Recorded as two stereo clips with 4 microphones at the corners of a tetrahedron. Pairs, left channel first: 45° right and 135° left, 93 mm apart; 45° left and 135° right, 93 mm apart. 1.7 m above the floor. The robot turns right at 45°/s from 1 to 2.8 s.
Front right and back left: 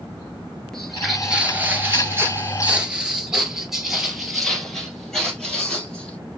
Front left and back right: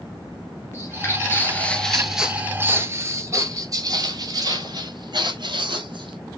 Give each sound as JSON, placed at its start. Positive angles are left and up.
{"t": 0.7, "sound": "footsteps", "azimuth_deg": 35, "distance_m": 1.8}